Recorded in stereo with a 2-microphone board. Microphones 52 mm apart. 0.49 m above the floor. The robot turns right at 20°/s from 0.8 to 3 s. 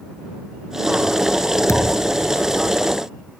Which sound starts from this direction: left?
A thud, at 1.7 s.